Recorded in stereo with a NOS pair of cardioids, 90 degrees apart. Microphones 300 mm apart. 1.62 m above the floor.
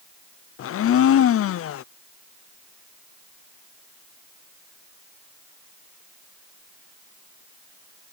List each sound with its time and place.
0.6 s a blender: 45° left